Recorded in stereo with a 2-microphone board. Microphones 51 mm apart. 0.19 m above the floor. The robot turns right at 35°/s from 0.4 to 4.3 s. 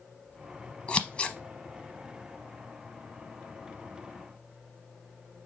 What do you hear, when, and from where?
0.9 s scissors: 25° left (ahead or behind), 0.7 m